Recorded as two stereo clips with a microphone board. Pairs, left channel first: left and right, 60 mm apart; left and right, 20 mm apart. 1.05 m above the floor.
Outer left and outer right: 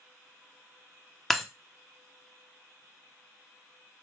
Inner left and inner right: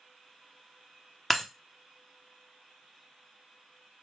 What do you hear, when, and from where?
1.3 s breaking glass: centre (ahead or behind), 0.6 m